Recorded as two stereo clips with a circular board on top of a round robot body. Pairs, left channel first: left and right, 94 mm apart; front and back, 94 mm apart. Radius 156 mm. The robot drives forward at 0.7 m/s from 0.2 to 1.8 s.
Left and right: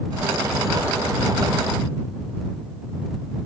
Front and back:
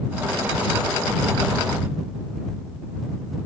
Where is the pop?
No pop in this recording.